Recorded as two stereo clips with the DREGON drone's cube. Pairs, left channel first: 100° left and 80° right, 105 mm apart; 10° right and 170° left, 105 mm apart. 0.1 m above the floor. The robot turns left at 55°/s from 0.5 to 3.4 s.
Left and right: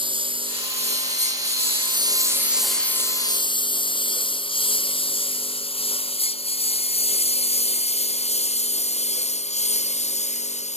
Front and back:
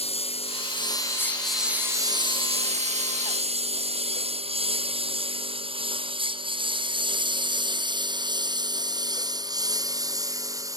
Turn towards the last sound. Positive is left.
turn(degrees=110)